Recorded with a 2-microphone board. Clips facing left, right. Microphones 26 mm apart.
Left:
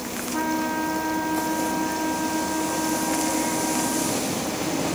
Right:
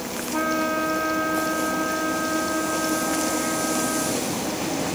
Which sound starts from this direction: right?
A trumpet, at 0.3 s.